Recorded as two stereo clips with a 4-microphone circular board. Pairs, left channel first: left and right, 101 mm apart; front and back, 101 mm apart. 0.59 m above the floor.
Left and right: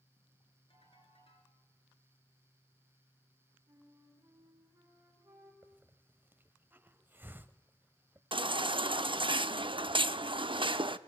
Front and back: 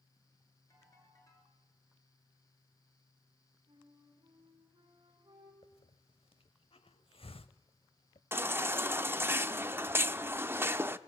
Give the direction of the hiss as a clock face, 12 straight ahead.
1 o'clock.